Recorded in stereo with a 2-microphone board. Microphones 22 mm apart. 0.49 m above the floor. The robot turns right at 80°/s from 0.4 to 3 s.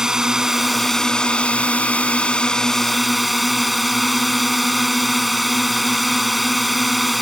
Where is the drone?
25° right; by 7.2 s 175° right.